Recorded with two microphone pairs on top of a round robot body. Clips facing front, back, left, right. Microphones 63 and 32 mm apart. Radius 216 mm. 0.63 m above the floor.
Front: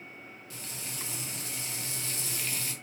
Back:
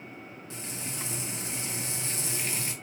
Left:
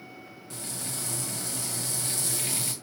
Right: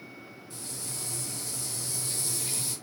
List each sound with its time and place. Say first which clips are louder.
0.5 s frying: back 4 dB, left 4 dB; 115° left, 1.6 m